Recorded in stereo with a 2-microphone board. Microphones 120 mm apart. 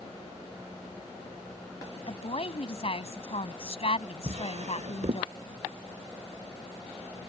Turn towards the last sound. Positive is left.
turn(degrees=-65)  # may be behind; listen again after turning